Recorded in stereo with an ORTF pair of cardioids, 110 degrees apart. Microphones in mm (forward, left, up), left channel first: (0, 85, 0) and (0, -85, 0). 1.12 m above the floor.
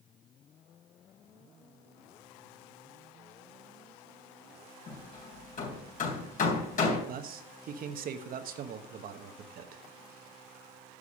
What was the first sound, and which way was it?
Hammering, 50° left.